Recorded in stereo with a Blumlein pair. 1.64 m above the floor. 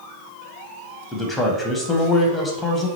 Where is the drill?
No drill in this recording.